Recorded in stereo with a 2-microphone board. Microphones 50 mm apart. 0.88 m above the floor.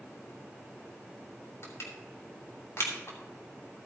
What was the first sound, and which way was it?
Crushing, 65° left (ahead or behind).